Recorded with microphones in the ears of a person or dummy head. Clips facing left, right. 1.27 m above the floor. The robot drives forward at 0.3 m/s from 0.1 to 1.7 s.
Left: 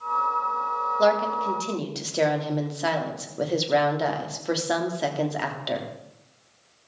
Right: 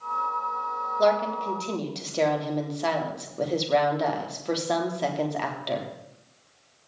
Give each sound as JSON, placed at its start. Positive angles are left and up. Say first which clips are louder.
{"t": 1.0, "sound": "a woman speaking", "louder": "left 1 dB", "side_deg": 10, "distance_m": 3.5}